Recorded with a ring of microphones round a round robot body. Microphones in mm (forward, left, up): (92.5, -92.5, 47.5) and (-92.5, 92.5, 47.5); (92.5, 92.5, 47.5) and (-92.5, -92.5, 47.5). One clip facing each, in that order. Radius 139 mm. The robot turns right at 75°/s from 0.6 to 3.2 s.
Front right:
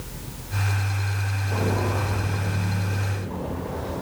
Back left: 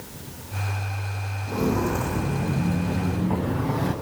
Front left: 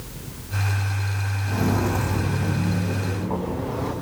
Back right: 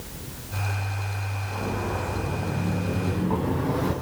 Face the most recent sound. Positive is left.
turn(degrees=155)